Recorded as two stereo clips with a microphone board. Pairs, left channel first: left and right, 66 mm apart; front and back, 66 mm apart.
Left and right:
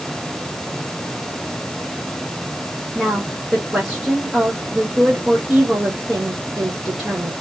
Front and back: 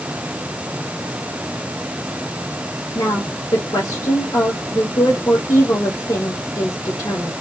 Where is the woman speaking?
15° right, 2 m.